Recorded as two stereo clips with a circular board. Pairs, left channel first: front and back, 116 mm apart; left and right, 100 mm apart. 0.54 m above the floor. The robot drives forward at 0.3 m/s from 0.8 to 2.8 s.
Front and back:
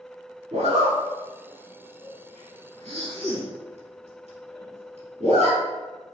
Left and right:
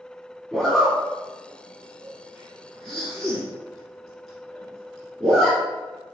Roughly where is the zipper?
Behind.